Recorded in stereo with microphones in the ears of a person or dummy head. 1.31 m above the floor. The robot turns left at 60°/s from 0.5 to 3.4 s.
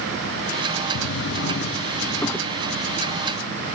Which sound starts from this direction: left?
A drawer, at 0.9 s.